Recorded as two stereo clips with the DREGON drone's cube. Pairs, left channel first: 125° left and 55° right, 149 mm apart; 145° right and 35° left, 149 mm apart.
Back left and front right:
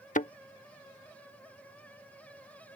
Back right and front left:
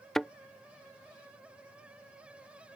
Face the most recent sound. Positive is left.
turn(degrees=130)